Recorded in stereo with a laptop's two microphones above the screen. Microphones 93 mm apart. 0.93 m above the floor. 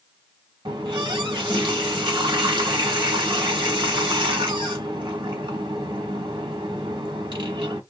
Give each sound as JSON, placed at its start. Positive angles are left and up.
{"t": 0.7, "sound": "a running tap", "side_deg": -60, "distance_m": 1.1}